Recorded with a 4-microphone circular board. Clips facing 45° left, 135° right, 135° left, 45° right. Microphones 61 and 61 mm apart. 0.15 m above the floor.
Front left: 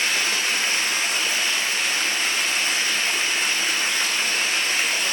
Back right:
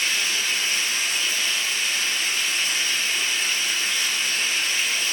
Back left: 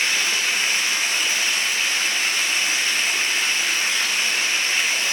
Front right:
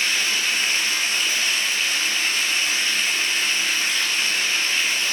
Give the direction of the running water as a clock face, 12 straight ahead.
10 o'clock.